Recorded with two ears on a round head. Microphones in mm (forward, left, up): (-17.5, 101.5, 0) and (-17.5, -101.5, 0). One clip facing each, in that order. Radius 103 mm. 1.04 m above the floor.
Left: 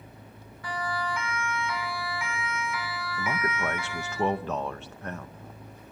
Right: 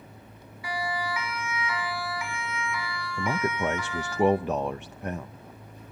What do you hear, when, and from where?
0.6 s a siren: 10° right (ahead or behind), 6 m; by 4.2 s 10° left (ahead or behind), 6.5 m
3.2 s a man speaking: 15° right (ahead or behind), 0.6 m